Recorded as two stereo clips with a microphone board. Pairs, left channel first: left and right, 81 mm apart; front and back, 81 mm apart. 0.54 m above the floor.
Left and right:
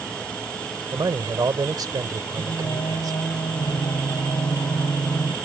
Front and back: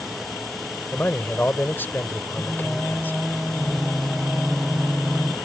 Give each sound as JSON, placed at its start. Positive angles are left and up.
{"t": 0.9, "sound": "a man speaking", "azimuth_deg": -60}
{"t": 2.4, "sound": "singing", "azimuth_deg": 85}